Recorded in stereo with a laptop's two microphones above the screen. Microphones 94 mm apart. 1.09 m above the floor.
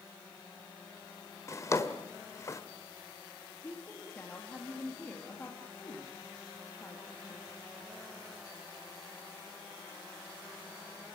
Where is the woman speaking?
20° left (ahead or behind), 2.5 m.